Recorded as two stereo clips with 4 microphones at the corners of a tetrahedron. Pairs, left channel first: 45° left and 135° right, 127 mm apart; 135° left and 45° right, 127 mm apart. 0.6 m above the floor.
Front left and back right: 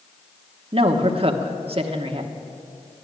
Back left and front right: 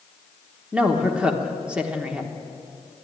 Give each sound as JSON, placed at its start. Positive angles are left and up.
{"t": 0.7, "sound": "a woman speaking", "azimuth_deg": -125, "distance_m": 1.0}